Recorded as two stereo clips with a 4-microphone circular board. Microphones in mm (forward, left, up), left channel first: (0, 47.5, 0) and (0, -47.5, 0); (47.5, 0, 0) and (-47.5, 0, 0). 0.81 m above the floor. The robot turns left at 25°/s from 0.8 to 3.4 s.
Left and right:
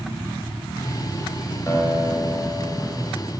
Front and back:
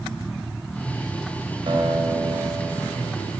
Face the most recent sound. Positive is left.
turn(degrees=105)